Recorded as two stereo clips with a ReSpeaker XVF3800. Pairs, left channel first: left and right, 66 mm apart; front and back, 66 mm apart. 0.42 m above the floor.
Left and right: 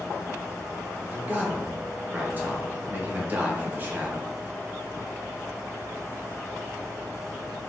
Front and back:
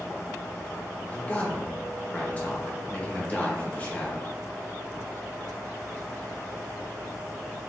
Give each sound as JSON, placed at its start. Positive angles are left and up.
{"t": 1.1, "sound": "a man speaking", "azimuth_deg": -50, "distance_m": 1.1}